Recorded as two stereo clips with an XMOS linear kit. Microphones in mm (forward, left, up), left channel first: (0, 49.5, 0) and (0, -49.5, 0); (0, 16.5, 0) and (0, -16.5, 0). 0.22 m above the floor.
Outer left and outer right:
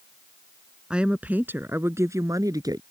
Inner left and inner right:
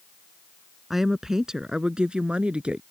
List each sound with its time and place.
0.9 s a woman speaking: 10° right (ahead or behind); by 2.8 s 40° right (ahead or behind)